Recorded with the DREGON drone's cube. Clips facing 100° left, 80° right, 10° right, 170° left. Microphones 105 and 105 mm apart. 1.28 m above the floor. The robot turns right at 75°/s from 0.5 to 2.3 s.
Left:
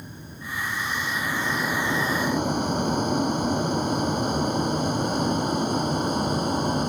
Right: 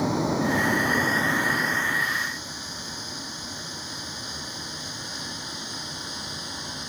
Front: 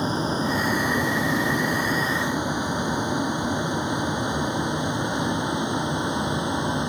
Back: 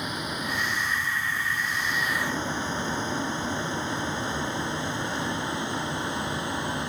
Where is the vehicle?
70° right; by 6.9 s 60° left.